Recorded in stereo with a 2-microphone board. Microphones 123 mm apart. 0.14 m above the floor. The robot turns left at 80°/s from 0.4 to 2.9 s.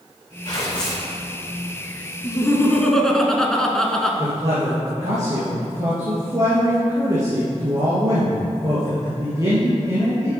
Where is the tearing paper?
35° left, 3 m; by 1.1 s 15° right, 3 m.